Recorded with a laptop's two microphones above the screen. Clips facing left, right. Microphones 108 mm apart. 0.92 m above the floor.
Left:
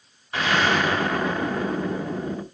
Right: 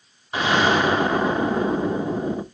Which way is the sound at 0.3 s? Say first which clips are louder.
Right 3 dB; 20° right (ahead or behind).